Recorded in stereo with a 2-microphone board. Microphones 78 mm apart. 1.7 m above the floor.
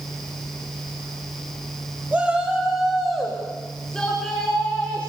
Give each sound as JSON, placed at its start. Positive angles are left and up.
{"t": 2.1, "sound": "a shout", "side_deg": -20, "distance_m": 2.5}